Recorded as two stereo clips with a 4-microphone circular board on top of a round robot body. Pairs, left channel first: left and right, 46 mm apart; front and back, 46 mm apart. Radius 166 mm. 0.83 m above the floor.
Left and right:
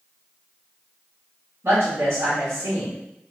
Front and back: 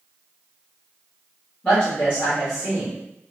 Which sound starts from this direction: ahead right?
A woman speaking, at 1.6 s.